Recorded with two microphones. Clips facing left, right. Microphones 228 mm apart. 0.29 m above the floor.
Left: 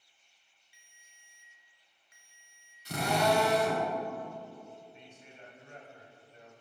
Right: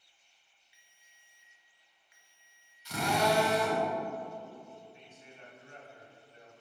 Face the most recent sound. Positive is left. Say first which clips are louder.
# left 1 dB
turn(degrees=35)  # may be behind; listen again after turning